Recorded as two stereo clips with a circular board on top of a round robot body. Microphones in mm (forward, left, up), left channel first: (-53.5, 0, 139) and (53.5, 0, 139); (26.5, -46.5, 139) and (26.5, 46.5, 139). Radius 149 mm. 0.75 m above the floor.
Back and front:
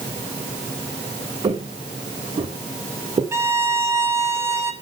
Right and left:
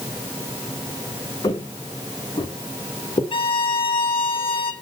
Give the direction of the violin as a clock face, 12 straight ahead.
2 o'clock.